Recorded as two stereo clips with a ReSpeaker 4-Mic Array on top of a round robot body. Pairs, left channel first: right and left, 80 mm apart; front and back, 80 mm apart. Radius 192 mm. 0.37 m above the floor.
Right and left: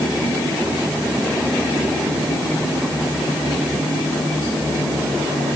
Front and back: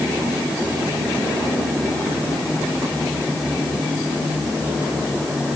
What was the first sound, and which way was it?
Only background noise.